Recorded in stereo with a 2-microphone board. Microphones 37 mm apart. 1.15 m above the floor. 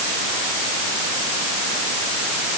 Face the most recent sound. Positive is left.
No sound to turn to.